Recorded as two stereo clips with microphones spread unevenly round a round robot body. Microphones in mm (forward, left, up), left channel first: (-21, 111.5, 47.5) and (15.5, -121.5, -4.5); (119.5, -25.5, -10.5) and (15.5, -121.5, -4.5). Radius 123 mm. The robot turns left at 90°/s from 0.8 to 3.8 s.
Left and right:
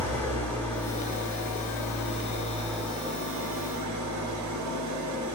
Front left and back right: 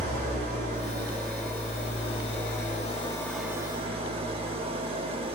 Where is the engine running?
175° right, 0.8 m; by 5.3 s 85° right, 0.8 m.